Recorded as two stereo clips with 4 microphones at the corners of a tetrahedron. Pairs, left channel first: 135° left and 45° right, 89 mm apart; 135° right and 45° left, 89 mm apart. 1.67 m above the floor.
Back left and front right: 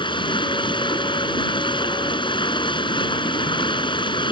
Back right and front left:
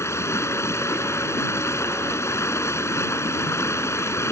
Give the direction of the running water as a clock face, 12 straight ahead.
7 o'clock.